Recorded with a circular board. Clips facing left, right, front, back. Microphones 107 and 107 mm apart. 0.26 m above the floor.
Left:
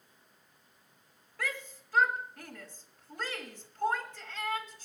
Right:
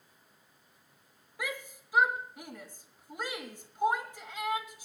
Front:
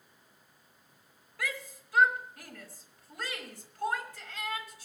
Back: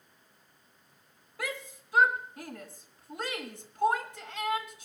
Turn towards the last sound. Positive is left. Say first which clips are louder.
# even, back 1 dB
turn(degrees=-150)